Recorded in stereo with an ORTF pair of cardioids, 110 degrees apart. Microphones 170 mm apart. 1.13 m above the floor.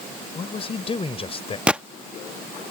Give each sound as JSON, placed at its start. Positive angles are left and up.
{"t": 0.3, "sound": "a man speaking", "azimuth_deg": 35}
{"t": 1.7, "sound": "a gunshot", "azimuth_deg": -5}